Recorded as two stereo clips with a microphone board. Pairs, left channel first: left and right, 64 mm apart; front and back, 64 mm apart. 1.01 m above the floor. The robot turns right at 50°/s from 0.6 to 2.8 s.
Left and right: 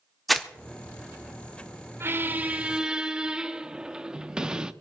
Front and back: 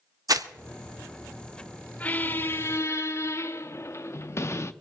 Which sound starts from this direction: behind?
Crumpling, at 0.3 s.